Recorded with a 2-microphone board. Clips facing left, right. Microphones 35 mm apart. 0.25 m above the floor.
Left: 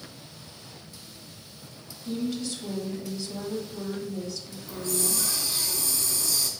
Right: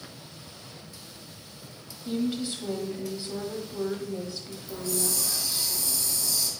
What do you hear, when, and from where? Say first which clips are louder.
2.0 s a woman speaking: right 2 dB; 25° right (ahead or behind), 1.3 m
4.7 s a hiss: left 1 dB; 50° left (ahead or behind), 1.7 m